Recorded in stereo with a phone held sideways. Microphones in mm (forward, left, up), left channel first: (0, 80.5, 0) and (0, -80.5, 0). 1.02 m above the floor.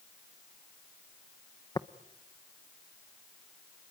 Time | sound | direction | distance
1.8 | tapping | 25° left (ahead or behind) | 0.7 m